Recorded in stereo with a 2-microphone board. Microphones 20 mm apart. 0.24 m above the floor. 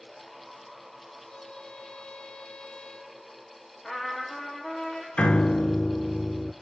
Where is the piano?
70° left (ahead or behind), 0.6 m.